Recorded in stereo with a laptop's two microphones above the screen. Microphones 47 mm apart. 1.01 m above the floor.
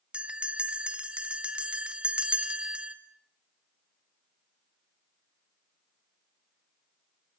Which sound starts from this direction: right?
A bell, at 0.1 s.